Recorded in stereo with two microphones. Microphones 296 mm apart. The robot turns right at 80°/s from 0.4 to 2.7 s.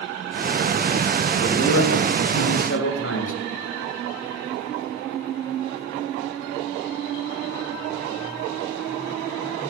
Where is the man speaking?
30° left, 6 m; by 3.4 s 130° left, 6 m.